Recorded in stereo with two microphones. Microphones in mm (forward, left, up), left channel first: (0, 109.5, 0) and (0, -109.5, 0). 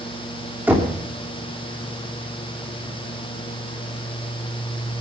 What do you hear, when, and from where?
0.7 s knocking: 10° right (ahead or behind), 2.5 m